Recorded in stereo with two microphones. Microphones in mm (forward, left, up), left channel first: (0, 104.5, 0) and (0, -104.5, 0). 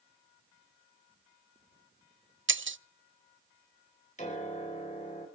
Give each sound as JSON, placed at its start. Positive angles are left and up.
{"t": 2.5, "sound": "breaking glass", "side_deg": -70, "distance_m": 0.5}
{"t": 4.2, "sound": "a piano", "side_deg": 35, "distance_m": 5.0}